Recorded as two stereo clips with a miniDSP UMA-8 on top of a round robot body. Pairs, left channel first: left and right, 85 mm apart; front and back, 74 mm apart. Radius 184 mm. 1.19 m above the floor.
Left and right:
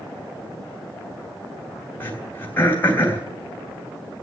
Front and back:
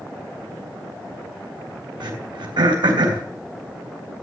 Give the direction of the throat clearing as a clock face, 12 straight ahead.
7 o'clock.